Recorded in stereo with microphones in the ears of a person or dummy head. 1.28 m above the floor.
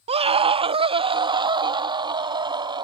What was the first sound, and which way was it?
A scream, 35° right (ahead or behind).